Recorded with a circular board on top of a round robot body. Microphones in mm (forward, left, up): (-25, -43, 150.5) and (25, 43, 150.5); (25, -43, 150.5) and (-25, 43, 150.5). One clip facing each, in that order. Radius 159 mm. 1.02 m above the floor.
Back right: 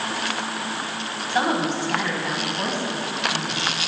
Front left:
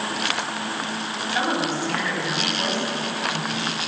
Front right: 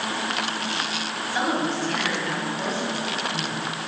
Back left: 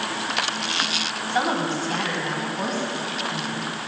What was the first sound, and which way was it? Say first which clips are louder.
A woman speaking: back right 2 dB, back left 1 dB; 175° left.